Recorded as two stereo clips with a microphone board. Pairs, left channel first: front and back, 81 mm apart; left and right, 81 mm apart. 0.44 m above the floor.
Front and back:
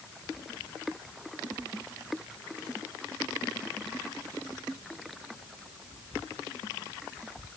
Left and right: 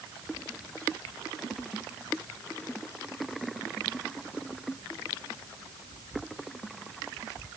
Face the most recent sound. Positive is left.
No sound to turn to.